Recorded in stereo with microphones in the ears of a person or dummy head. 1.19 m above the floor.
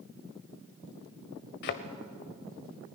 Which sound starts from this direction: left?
A thud, at 1.6 s.